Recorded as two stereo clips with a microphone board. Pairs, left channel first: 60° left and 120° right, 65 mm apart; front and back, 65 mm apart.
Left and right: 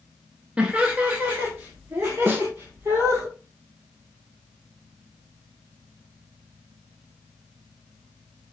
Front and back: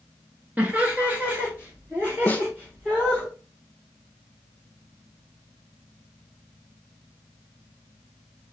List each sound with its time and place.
0.6 s laughter: 155° right, 1.1 m; by 3.3 s 115° right, 2 m
2.3 s a snare drum: 70° right, 0.7 m